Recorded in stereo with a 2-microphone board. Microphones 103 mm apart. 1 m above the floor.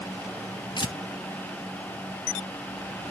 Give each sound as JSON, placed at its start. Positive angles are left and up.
{"t": 0.8, "sound": "tearing paper", "side_deg": 50, "distance_m": 0.8}